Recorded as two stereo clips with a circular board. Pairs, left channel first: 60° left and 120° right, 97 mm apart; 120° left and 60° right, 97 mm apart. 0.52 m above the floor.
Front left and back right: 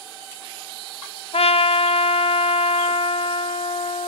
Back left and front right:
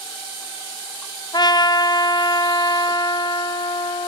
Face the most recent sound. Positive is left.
turn(degrees=75)